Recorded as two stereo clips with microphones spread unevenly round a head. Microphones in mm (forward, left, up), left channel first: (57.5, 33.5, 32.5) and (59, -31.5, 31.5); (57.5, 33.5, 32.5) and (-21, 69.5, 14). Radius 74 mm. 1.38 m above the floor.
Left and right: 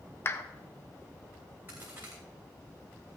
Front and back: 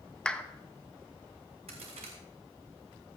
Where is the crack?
165° right, 3 m.